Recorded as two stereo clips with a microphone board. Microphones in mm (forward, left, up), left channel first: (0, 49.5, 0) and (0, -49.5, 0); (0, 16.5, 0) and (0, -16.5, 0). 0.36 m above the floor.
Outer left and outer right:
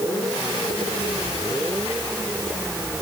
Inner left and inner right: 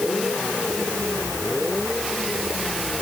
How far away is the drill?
No drill in this recording.